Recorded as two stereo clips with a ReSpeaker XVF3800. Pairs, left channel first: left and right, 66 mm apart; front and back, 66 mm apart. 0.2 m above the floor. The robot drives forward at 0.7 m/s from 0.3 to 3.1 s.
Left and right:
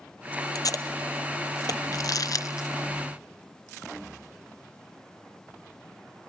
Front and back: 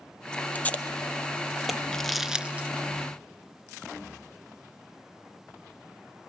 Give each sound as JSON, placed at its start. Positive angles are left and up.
{"t": 0.6, "sound": "tape being pulled", "azimuth_deg": 65, "distance_m": 1.9}
{"t": 1.9, "sound": "crumpling", "azimuth_deg": 80, "distance_m": 0.8}